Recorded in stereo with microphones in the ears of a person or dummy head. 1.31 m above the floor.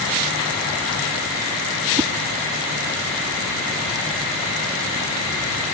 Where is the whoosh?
20° right (ahead or behind).